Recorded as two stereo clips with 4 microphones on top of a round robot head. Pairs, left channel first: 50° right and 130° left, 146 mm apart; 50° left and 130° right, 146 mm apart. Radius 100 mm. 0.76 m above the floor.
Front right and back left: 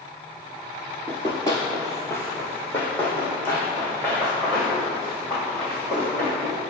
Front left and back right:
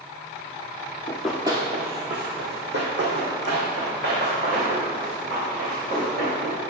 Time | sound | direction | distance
1.1 | running footsteps | 5° left | 0.8 m